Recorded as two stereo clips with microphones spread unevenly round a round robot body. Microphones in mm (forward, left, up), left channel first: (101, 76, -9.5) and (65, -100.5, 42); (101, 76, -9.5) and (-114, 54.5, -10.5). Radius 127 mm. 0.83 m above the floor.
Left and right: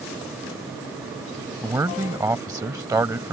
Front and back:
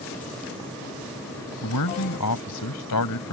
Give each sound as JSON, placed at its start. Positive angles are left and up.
{"t": 1.6, "sound": "a man speaking", "azimuth_deg": -25}